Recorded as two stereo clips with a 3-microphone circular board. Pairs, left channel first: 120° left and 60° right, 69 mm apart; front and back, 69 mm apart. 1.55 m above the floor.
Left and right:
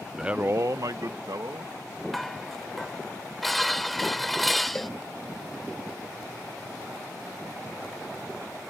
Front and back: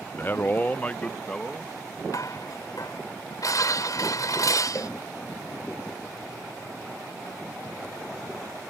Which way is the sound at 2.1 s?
30° left.